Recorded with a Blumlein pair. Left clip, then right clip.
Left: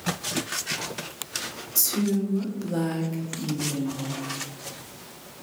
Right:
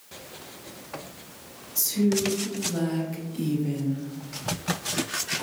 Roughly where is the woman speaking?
Ahead left.